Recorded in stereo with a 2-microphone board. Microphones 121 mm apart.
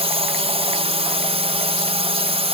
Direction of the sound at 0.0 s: 55° right (ahead or behind).